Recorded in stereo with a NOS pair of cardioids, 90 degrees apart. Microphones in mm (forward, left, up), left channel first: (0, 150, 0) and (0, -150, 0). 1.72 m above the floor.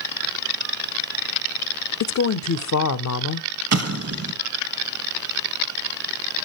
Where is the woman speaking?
60° left, 0.6 m.